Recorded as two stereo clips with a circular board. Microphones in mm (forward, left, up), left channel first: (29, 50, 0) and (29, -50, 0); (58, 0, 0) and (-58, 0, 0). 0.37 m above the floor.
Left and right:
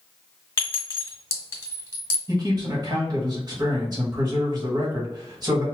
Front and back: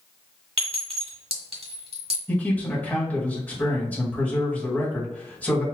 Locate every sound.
0.6 s a clink: 150° left, 1.6 m
2.3 s a man speaking: 70° right, 1.6 m